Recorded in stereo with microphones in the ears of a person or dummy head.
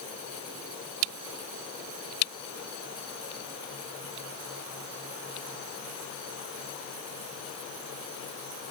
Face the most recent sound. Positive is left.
No sound to turn to.